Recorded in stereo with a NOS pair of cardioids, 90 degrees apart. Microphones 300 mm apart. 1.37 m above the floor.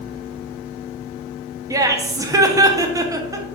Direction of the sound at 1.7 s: 10° right.